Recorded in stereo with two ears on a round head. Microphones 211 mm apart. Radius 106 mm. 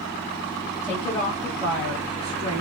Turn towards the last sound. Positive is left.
turn(degrees=-75)  # may be behind; listen again after turning